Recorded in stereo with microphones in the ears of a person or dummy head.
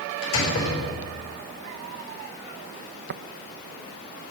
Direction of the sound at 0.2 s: 90° left.